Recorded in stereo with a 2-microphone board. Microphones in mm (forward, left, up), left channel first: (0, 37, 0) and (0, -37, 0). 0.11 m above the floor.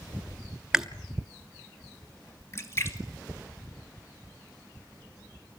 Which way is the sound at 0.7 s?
10° right (ahead or behind).